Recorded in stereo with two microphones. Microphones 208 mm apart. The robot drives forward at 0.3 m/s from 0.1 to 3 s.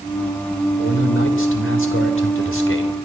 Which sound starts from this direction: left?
A man speaking, at 0.8 s.